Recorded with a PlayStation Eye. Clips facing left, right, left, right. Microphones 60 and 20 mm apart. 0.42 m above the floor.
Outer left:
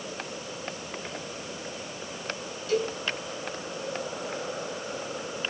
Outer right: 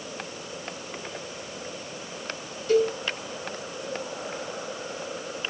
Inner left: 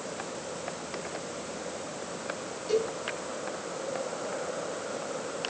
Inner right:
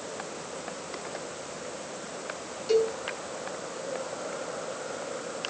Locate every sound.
2.7 s a cowbell: 40° right (ahead or behind), 5 m